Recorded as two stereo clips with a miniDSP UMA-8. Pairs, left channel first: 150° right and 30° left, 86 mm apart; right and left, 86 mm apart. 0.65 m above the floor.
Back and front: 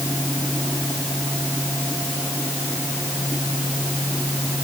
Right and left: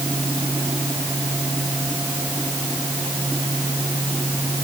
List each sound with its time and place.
Only background noise.